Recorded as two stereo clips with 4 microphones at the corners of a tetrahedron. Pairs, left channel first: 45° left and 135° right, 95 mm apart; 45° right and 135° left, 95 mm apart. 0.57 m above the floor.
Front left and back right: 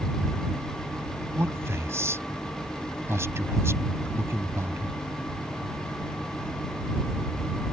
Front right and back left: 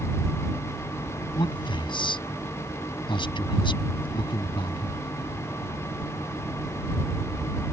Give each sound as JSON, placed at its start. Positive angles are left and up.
{"t": 1.4, "sound": "a man speaking", "azimuth_deg": -75}